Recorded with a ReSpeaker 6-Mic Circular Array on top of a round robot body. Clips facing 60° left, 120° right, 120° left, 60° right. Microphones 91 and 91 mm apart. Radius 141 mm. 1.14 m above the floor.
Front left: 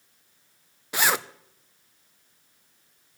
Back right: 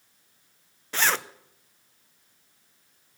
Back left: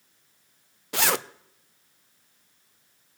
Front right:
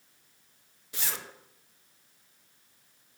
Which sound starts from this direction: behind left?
A zipper, at 0.9 s.